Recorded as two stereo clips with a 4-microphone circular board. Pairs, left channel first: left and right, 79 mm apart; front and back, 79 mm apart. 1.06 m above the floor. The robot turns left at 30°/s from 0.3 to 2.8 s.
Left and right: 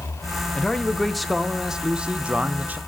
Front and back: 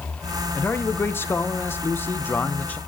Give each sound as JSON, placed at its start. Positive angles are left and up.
{"t": 0.6, "sound": "a man speaking", "azimuth_deg": 25, "distance_m": 0.6}